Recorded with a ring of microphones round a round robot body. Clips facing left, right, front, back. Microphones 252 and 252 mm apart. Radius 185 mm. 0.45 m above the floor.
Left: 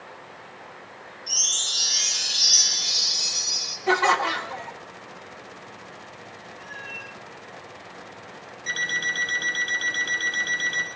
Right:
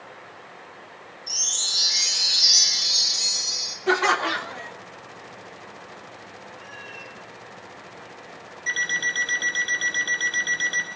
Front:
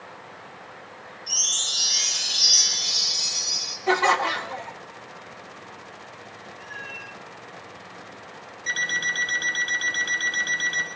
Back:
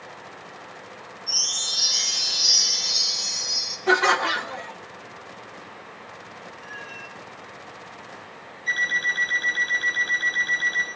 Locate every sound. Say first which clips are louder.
1.3 s a chime: even, back 2 dB; 10° left, 7 m
3.9 s laughter: right 1 dB, back 1 dB; 135° right, 0.9 m
6.6 s a cat meowing: even, back 1 dB; 35° right, 8.5 m
8.7 s an alarm clock: left 1 dB, even; 5° left, 7.5 m